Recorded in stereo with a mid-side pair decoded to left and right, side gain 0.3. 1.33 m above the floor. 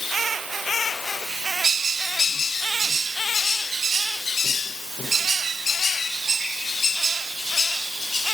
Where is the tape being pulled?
I don't hear tape being pulled.